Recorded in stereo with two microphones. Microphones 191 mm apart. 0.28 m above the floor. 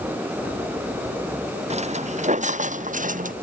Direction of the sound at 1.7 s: 35° right (ahead or behind).